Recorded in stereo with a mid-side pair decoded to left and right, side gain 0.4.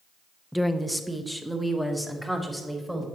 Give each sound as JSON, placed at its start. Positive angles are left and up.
{"t": 0.5, "sound": "a woman speaking", "azimuth_deg": 0, "distance_m": 0.7}